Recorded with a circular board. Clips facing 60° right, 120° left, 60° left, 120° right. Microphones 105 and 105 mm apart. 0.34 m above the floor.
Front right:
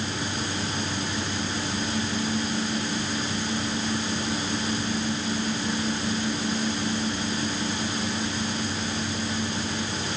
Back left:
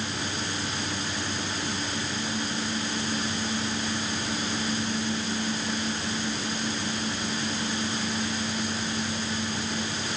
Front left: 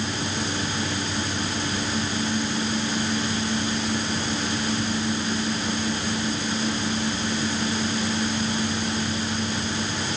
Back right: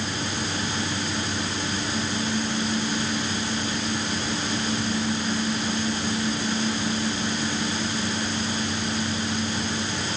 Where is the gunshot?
No gunshot in this recording.